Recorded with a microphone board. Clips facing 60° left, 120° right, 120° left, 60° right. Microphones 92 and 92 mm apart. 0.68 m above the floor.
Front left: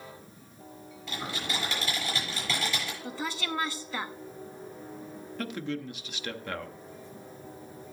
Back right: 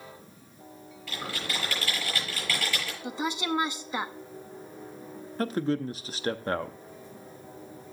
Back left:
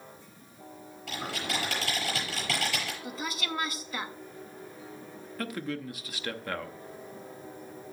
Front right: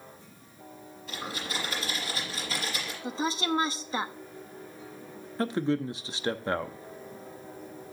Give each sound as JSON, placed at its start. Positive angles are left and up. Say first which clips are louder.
{"t": 1.1, "sound": "typing on a keyboard", "louder": "even, back left 2 dB", "azimuth_deg": 130, "distance_m": 7.0}
{"t": 3.0, "sound": "a woman speaking", "louder": "back right 7 dB, front right 6 dB", "azimuth_deg": -70, "distance_m": 0.6}
{"t": 5.4, "sound": "a man speaking", "louder": "back right 7 dB, front right 7 dB", "azimuth_deg": -105, "distance_m": 0.7}